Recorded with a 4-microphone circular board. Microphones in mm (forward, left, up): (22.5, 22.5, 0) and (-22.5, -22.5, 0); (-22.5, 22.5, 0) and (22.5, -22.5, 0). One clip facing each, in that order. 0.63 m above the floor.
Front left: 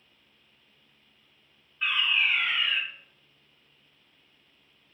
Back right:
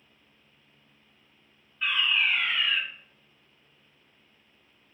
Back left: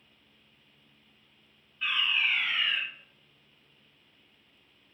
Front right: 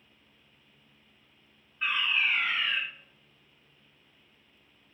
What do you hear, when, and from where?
1.8 s a fire alarm: 25° right, 1.6 m